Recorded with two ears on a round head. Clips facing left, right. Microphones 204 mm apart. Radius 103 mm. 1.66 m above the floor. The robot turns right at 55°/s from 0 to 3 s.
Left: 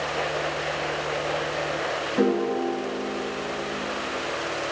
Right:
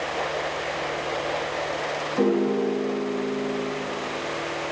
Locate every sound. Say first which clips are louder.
2.2 s a piano: right 1 dB; 170° left, 1.8 m; by 3.7 s 145° right, 1.8 m